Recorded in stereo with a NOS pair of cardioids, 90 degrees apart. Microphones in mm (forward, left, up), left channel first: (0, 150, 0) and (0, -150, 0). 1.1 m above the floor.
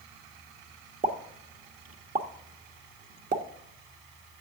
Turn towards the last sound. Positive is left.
turn(degrees=-30)